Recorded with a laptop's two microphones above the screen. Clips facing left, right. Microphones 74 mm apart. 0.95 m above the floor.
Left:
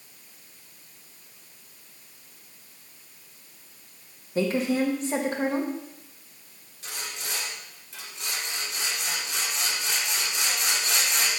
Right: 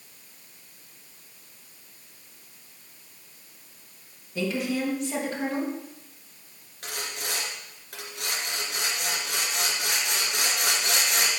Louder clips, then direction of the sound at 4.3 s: Left 4 dB; 35° left (ahead or behind).